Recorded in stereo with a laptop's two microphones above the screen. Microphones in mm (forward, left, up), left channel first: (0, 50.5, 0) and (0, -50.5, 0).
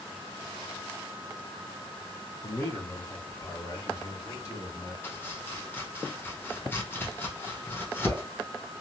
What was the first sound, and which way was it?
A man speaking, 30° left (ahead or behind).